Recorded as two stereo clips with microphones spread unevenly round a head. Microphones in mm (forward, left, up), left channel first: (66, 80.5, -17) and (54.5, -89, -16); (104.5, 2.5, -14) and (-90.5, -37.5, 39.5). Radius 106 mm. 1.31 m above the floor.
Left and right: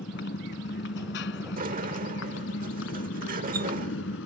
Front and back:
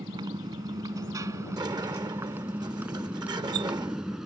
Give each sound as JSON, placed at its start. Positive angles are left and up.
{"t": 0.0, "sound": "a motorcycle", "azimuth_deg": 125}
{"t": 1.6, "sound": "a sliding door", "azimuth_deg": -115}